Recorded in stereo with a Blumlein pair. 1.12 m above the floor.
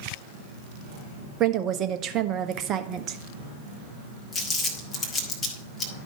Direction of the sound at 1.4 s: 30° right.